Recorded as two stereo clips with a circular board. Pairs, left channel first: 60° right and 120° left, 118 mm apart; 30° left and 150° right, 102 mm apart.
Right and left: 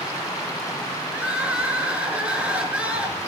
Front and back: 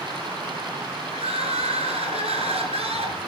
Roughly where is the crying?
Behind.